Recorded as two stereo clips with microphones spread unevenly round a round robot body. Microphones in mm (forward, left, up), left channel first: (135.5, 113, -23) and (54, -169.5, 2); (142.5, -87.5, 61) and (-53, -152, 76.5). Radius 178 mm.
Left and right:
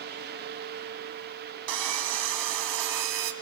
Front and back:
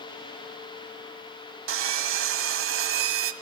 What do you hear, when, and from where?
1.7 s sawing: 145° right, 1.7 m